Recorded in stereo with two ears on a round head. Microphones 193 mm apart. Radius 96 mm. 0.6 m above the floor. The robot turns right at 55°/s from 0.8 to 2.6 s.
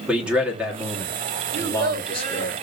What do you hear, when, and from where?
0.1 s a man speaking: 5° right (ahead or behind), 1.2 m; by 2.5 s 25° left (ahead or behind), 1.2 m
1.5 s a child speaking: 85° right, 0.9 m; by 2.5 s 30° right, 0.9 m